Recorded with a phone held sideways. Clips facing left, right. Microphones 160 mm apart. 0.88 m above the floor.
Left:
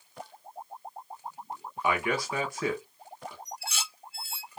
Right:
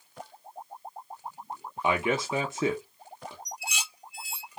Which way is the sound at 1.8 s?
25° right (ahead or behind).